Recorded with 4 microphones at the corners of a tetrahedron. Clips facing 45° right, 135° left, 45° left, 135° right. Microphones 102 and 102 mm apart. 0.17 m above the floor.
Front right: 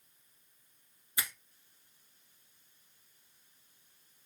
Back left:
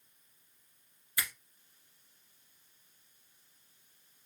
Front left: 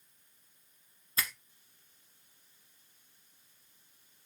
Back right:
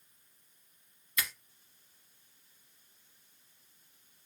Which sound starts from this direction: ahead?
A finger snap, at 1.2 s.